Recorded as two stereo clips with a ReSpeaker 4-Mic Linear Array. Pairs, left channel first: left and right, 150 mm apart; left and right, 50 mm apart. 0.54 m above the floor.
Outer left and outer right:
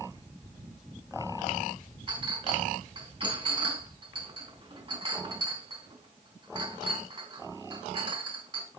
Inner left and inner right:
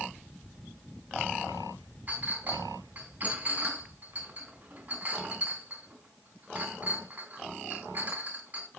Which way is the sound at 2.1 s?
35° right (ahead or behind).